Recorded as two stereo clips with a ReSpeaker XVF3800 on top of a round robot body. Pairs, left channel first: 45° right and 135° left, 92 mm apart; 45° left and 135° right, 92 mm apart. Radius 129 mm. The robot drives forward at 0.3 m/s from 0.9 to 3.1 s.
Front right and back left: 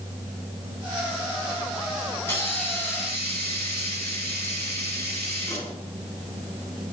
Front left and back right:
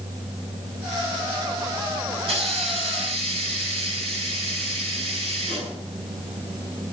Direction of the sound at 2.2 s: 115° right.